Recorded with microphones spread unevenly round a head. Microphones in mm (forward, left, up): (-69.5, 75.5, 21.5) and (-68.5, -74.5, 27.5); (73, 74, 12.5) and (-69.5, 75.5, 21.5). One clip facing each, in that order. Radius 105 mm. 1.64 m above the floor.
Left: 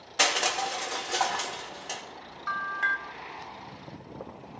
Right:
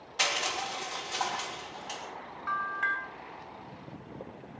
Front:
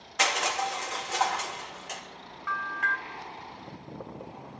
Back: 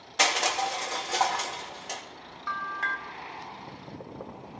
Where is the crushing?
125° left, 3.5 m.